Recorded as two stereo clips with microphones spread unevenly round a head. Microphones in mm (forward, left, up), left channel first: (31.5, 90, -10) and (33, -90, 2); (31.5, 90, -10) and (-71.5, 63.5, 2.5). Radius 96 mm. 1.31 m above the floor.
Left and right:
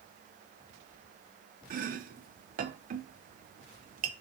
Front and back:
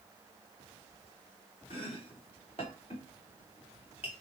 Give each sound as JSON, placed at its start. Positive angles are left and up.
{"t": 1.7, "sound": "chopping", "azimuth_deg": -45, "distance_m": 0.7}